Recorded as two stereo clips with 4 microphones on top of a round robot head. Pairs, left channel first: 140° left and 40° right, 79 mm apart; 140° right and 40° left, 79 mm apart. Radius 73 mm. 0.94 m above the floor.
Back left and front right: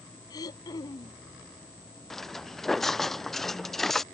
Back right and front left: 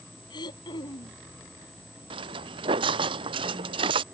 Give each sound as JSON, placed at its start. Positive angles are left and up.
{"t": 0.3, "sound": "throat clearing", "azimuth_deg": -175}
{"t": 2.1, "sound": "footsteps", "azimuth_deg": 55}